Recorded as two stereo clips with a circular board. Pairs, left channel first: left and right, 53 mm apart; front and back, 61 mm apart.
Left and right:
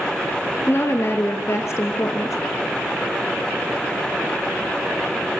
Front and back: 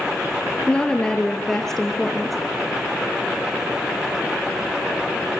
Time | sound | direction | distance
0.7 | a woman speaking | 65° left | 2.5 m